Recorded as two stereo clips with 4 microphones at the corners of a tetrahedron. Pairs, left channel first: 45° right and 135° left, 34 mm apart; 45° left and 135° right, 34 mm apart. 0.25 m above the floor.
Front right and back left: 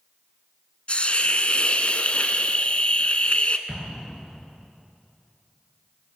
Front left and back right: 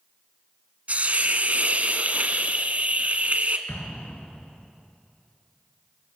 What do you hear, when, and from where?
0.9 s a hiss: 95° right, 1.3 m
3.7 s an explosion: 45° left, 3 m